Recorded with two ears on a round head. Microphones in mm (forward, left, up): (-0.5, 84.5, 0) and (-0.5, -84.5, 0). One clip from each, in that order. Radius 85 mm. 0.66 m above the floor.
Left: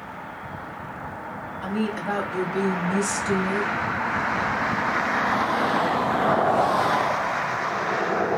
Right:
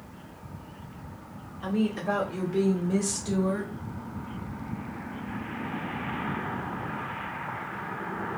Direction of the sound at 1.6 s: 20° left (ahead or behind).